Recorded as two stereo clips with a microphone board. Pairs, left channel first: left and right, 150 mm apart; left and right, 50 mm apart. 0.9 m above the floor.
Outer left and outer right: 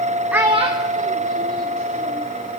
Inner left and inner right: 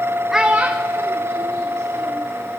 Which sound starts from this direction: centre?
A child speaking, at 0.3 s.